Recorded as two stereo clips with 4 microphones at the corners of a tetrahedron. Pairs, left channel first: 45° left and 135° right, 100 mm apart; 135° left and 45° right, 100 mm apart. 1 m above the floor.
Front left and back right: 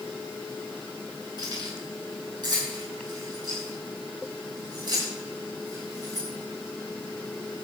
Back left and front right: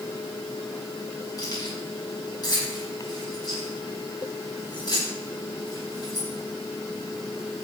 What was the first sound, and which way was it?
Keys jangling, 175° right.